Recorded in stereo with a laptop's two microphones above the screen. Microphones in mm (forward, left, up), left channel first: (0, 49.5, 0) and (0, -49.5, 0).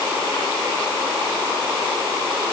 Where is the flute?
No flute in this recording.